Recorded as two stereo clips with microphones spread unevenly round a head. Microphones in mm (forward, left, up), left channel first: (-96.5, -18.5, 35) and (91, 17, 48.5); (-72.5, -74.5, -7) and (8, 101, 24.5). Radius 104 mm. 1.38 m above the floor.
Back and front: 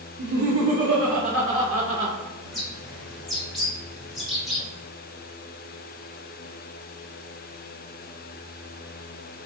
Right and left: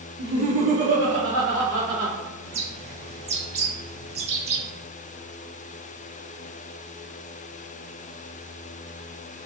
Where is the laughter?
30° left, 0.6 m; by 2.1 s 40° left, 1.6 m.